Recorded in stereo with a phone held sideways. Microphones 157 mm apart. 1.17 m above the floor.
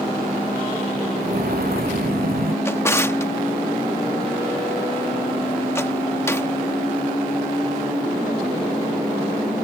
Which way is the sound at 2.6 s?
15° left (ahead or behind).